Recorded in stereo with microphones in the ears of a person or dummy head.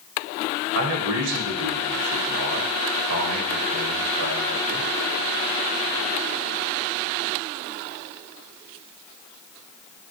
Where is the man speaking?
75° right (ahead or behind), 0.7 m.